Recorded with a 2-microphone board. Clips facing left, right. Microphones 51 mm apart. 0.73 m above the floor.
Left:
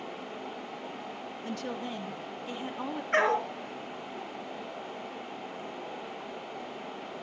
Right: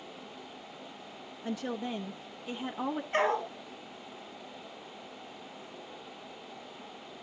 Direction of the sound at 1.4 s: 10° right (ahead or behind).